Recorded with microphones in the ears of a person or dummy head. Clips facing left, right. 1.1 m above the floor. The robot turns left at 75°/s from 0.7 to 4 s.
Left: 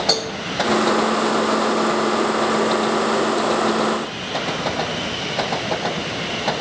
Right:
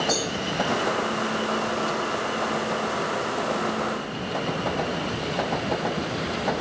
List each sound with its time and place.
0.1 s a cowbell: 65° left (ahead or behind), 2 m